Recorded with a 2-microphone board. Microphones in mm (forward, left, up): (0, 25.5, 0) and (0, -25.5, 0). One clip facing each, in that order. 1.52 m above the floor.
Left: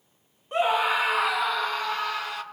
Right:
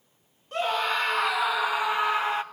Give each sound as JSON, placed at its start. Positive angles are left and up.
{"t": 0.5, "sound": "a scream", "side_deg": 20, "distance_m": 2.0}